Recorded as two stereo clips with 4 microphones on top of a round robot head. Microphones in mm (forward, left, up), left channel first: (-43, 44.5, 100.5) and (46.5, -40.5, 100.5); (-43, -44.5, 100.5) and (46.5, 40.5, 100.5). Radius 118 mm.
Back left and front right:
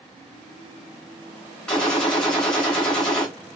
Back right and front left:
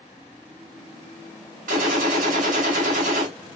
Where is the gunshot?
55° left, 2.5 m.